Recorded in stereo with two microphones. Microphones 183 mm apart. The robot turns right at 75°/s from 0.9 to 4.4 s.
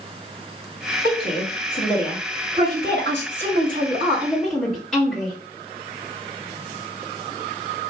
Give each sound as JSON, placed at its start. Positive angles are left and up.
{"t": 1.0, "sound": "a woman speaking", "azimuth_deg": 110, "distance_m": 1.7}